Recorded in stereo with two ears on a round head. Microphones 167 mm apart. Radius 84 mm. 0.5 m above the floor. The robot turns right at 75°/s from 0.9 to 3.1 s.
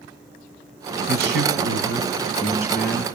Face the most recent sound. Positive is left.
turn(degrees=20)